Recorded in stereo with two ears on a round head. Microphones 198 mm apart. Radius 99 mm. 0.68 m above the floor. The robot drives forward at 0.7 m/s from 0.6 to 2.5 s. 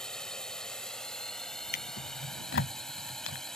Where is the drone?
5° left (ahead or behind).